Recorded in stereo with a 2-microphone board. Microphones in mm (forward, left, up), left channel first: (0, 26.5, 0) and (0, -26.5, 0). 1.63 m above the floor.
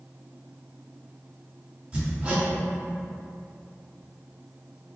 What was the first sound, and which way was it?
Hammering, 25° right (ahead or behind).